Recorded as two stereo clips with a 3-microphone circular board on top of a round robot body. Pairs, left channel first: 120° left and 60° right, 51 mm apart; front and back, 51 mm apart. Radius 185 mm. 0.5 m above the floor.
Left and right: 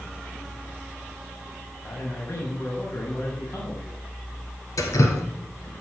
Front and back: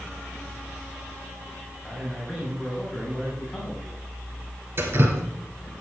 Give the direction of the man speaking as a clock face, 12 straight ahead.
9 o'clock.